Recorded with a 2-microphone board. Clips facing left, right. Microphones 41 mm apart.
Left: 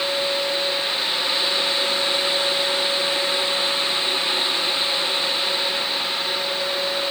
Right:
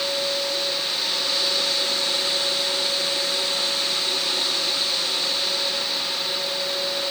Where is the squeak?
No squeak in this recording.